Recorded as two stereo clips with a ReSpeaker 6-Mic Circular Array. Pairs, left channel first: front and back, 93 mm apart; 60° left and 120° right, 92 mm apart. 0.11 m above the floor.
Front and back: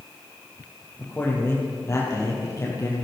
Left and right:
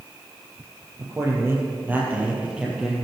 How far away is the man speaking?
About 3 m.